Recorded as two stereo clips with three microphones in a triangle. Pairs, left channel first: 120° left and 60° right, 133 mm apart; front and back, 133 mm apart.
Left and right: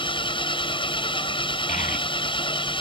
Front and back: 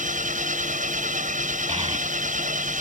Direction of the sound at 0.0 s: 170° left.